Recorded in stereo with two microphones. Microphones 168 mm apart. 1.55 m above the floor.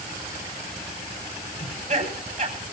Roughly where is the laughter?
Right.